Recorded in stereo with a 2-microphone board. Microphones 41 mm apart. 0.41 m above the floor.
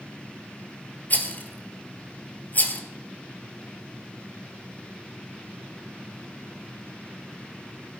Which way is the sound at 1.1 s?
40° left (ahead or behind).